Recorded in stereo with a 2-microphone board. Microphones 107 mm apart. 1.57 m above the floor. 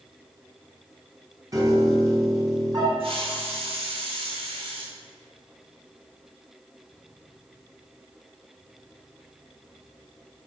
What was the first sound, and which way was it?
A piano, 35° right (ahead or behind).